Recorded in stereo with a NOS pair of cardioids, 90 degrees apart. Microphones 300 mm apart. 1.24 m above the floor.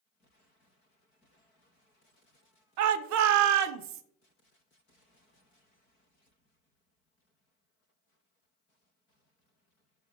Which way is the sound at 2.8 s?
70° right.